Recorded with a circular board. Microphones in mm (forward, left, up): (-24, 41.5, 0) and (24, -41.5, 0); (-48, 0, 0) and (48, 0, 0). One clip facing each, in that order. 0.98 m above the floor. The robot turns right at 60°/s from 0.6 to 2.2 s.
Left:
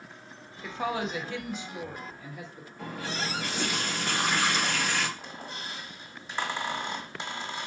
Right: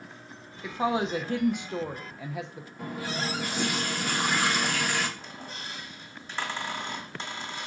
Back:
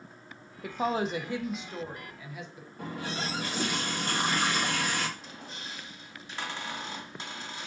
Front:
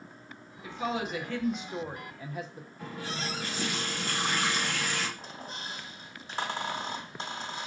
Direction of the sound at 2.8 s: 145° right.